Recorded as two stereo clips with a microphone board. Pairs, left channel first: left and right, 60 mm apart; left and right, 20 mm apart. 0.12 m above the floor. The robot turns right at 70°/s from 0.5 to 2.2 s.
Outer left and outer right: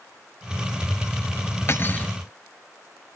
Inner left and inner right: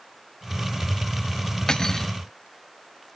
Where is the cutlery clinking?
120° left, 1.1 m; by 2.1 s 155° left, 1.1 m.